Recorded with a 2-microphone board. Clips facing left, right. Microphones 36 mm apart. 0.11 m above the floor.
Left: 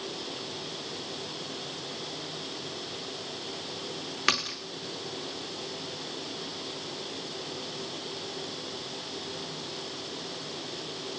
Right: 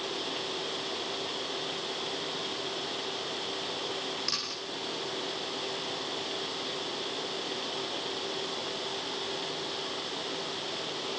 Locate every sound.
4.3 s a splash: 60° left (ahead or behind), 4.5 m